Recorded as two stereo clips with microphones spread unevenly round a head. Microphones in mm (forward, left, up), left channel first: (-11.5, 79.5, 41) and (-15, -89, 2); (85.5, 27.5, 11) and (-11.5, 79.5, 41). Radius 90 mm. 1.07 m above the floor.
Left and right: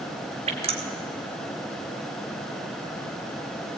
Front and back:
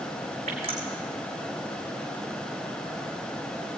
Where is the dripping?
150° right, 2.0 m.